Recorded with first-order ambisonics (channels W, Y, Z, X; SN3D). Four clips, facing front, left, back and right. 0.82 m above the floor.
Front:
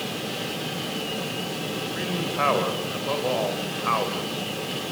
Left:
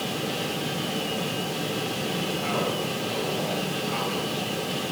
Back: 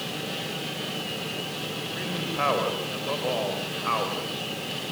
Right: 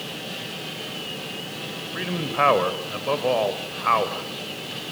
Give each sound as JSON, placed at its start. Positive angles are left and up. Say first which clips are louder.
{"t": 1.9, "sound": "a man speaking", "louder": "right 4 dB, front 2 dB", "azimuth_deg": -80, "distance_m": 4.0}